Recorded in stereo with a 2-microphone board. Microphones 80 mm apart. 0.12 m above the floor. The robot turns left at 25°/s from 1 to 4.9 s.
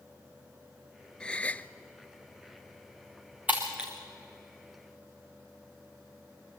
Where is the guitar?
I don't hear a guitar.